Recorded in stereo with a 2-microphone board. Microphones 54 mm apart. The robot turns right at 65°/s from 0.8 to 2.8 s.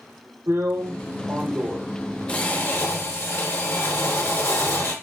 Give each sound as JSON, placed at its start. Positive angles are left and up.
{"t": 0.5, "sound": "a drill", "azimuth_deg": -75, "distance_m": 1.1}